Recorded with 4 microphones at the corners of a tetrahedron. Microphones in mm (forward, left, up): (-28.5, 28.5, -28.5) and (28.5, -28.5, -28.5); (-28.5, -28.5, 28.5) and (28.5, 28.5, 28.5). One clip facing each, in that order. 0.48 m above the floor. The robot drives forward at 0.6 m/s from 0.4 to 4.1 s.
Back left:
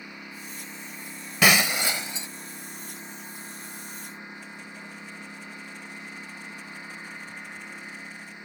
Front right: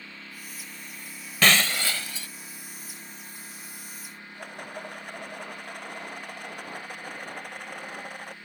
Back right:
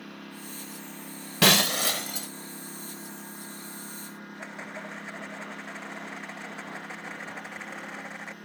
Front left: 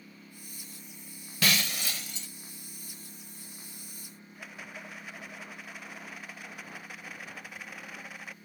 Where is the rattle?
75° right.